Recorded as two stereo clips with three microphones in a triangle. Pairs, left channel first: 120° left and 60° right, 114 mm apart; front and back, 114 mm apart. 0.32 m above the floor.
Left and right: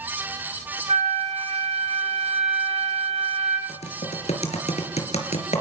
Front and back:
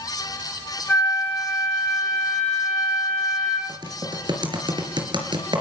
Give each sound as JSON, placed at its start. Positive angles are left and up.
{"t": 0.9, "sound": "a flute", "azimuth_deg": -75, "distance_m": 5.5}
{"t": 3.7, "sound": "typing on a keyboard", "azimuth_deg": 135, "distance_m": 4.0}